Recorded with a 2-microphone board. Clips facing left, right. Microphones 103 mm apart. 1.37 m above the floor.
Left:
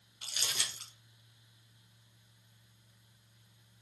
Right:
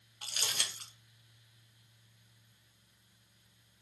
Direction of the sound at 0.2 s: 50° right (ahead or behind).